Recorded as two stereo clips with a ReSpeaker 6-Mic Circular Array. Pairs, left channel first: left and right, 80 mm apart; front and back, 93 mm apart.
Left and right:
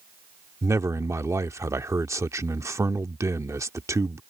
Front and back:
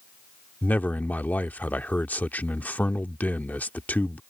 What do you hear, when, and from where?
0.6 s a man speaking: 65° right